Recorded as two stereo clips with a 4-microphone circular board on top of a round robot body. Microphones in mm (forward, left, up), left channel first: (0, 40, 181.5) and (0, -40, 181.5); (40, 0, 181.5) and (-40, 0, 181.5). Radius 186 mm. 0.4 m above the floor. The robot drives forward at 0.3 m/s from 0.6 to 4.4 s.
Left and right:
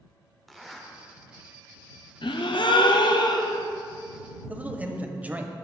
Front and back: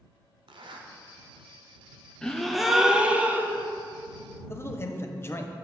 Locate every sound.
0.5 s a zipper: straight behind, 0.8 m
2.2 s a gasp: 80° left, 0.7 m; by 3.7 s 120° left, 0.8 m
4.5 s a man speaking: 30° right, 0.9 m